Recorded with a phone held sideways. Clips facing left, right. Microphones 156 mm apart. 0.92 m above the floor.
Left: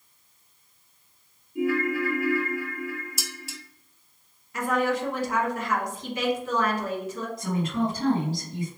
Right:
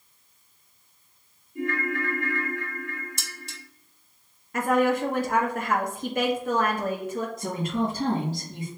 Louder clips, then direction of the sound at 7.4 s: Left 3 dB; 45° right (ahead or behind).